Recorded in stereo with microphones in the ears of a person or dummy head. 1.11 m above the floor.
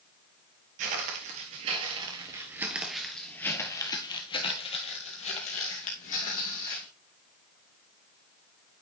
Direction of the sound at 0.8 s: 50° right (ahead or behind).